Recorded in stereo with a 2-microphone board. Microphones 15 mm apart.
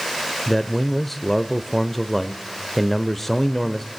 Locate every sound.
0.5 s a man speaking: 15° left (ahead or behind), 0.8 m